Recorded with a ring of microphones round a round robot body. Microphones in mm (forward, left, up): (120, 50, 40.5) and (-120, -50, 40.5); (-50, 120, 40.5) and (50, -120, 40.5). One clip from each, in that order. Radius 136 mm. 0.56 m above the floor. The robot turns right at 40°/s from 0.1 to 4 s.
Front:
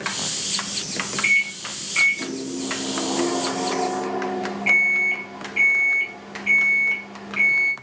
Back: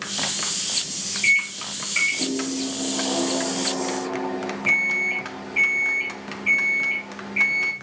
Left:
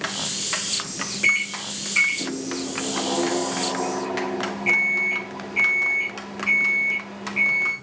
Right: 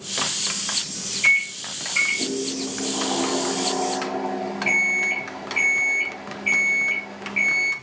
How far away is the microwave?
About 0.9 m.